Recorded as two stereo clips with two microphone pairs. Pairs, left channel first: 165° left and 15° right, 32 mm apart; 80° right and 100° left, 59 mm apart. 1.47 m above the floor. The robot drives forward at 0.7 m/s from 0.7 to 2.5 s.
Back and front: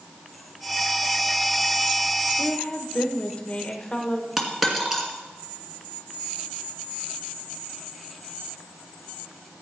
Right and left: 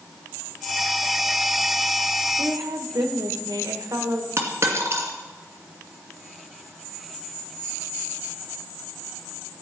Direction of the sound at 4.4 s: 70° left.